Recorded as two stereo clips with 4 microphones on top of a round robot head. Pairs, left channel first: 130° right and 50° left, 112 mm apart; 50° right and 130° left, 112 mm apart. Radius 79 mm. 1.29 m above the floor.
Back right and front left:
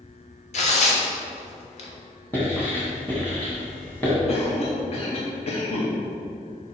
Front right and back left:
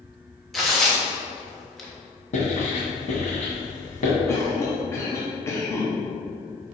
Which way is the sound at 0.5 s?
135° right.